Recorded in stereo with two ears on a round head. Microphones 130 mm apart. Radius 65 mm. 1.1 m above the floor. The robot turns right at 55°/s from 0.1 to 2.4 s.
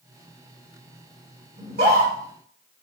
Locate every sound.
1.6 s a scream: 65° right (ahead or behind), 2.5 m; by 2.1 s 75° right (ahead or behind), 2.5 m